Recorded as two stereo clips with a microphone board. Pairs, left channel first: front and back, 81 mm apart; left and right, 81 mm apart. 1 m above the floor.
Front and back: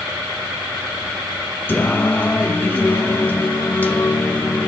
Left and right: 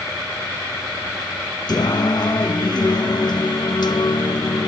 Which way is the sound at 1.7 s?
65° left.